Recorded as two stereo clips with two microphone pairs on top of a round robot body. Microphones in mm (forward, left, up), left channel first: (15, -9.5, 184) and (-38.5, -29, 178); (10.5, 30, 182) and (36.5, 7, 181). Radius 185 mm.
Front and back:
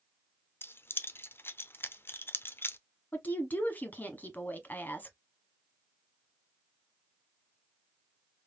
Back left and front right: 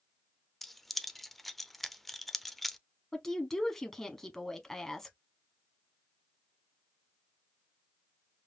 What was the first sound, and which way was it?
Keys jangling, 55° left.